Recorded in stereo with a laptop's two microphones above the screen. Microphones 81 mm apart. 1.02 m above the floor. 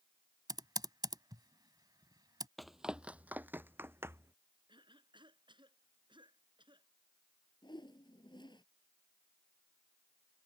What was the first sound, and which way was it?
Typing on a keyboard, 55° right (ahead or behind).